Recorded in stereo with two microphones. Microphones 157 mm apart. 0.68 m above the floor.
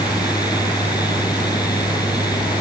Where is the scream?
No scream in this recording.